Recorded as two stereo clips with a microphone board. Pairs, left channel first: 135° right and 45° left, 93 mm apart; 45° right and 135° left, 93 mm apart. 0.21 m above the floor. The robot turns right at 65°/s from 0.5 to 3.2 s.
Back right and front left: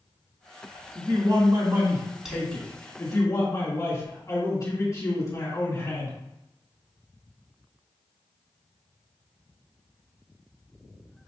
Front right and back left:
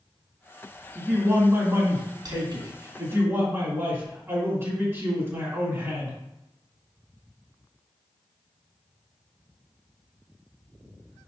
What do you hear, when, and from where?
0.9 s a man speaking: 45° left, 2 m; by 6.2 s 170° right, 2 m